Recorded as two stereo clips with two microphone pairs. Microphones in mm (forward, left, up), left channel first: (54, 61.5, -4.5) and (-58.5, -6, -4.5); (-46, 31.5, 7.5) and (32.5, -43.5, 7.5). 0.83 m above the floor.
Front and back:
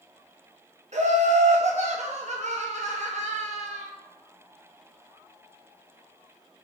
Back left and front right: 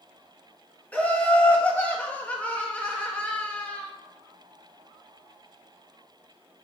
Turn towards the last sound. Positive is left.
turn(degrees=-150)